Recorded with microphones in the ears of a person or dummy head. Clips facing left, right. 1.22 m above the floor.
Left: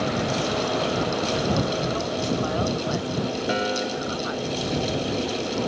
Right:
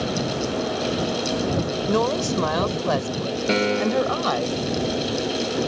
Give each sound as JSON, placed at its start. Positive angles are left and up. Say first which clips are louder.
{"t": 1.9, "sound": "a woman speaking", "louder": "right 4 dB", "side_deg": -75}
{"t": 3.5, "sound": "a piano", "louder": "right 9 dB", "side_deg": -35}